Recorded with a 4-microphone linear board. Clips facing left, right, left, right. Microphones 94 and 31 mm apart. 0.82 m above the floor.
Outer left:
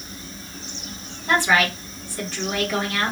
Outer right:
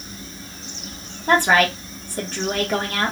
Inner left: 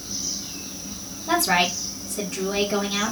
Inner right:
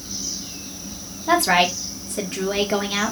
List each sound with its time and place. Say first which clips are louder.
1.3 s a woman speaking: outer right 3 dB, inner right 3 dB; 45° right (ahead or behind), 1.3 m